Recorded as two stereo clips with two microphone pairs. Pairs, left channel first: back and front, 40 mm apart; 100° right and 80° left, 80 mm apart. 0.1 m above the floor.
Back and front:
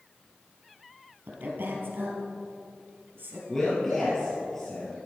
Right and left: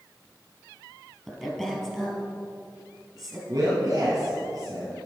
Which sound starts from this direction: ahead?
A woman speaking, at 1.3 s.